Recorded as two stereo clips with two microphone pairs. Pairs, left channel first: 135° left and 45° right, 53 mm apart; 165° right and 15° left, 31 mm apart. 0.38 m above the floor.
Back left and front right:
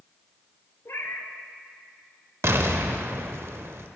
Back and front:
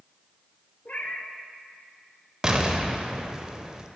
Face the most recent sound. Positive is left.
turn(degrees=-45)